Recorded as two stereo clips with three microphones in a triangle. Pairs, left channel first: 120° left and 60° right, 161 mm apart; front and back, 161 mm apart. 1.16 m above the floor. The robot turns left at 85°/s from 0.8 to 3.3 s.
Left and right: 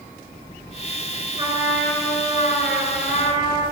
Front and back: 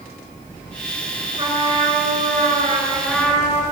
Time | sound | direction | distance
1.4 | a trumpet | 115° right | 7.5 m